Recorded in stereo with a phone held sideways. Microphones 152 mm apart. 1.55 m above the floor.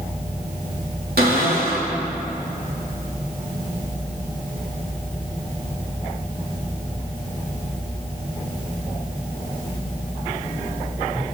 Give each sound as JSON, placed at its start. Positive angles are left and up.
{"t": 1.2, "sound": "a cupboard door", "side_deg": -85, "distance_m": 3.0}